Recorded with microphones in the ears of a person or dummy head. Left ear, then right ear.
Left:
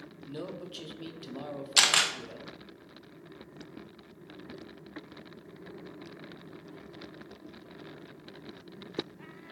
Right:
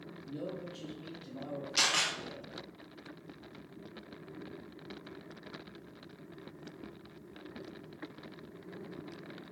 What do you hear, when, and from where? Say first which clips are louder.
0.2 s a man speaking: left 1 dB; 50° left (ahead or behind), 0.9 m
1.8 s a camera shutter: left 6 dB; 25° left (ahead or behind), 0.6 m